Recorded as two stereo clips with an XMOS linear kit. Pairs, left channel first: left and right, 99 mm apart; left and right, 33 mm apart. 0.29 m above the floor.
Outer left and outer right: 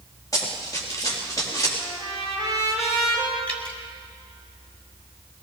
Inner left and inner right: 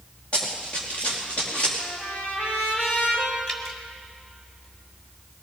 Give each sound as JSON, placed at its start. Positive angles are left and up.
{"t": 0.3, "sound": "running footsteps", "side_deg": 35, "distance_m": 5.0}
{"t": 1.8, "sound": "a trumpet", "side_deg": 80, "distance_m": 4.0}
{"t": 3.5, "sound": "dripping", "side_deg": 15, "distance_m": 1.8}